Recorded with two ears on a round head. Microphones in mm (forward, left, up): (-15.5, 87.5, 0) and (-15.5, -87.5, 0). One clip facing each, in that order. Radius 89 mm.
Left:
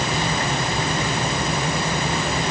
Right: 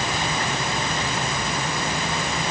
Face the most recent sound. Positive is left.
No sound to turn to.